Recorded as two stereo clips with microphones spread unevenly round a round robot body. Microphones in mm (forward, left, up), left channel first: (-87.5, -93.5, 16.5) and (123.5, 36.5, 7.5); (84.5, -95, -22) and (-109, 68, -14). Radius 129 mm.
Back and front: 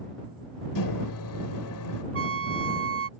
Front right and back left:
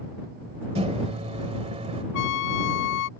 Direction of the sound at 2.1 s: 5° right.